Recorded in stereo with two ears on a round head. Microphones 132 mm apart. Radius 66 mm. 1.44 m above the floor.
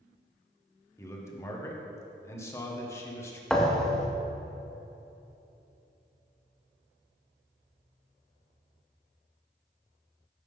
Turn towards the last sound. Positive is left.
turn(degrees=5)  # may be behind; listen again after turning